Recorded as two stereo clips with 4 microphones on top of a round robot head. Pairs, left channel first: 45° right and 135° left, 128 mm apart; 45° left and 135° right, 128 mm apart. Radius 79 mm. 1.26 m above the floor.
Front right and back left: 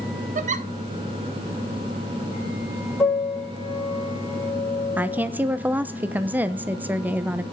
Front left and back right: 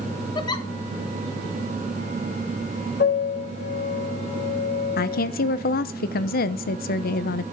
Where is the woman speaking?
55° left, 0.6 m.